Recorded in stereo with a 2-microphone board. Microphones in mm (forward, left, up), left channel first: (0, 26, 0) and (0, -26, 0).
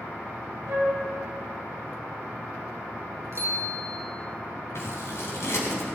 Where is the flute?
45° right (ahead or behind), 6 m.